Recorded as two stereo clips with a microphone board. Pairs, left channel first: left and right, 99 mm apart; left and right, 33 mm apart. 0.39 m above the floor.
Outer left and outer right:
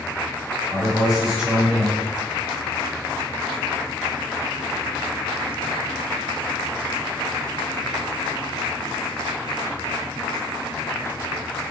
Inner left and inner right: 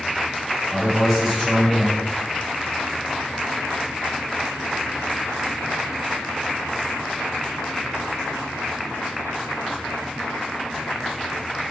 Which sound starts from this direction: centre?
A man speaking, at 0.7 s.